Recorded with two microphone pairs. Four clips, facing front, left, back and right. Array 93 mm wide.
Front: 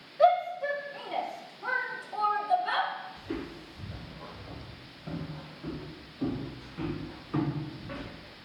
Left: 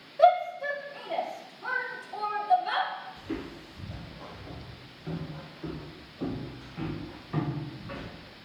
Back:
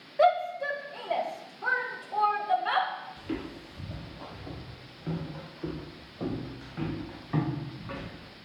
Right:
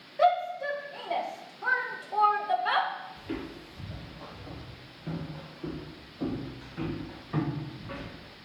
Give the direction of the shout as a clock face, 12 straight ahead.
5 o'clock.